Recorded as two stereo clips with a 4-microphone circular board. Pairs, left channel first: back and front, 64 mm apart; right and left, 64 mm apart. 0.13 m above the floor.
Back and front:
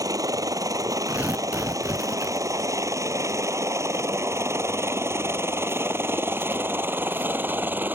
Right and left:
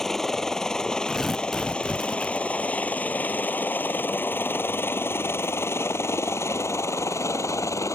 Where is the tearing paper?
5° right.